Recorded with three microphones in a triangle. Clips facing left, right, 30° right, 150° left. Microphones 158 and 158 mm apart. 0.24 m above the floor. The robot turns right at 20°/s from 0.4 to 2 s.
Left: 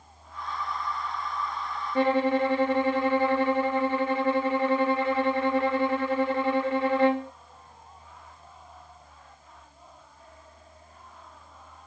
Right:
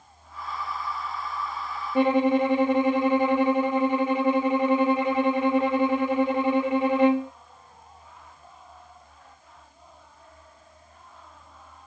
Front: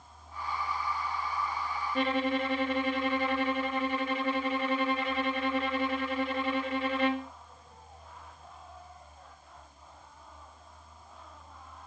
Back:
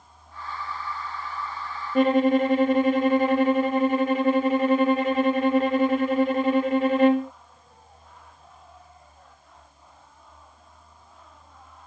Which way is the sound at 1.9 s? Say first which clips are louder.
Right 3 dB, back 11 dB; 165° right.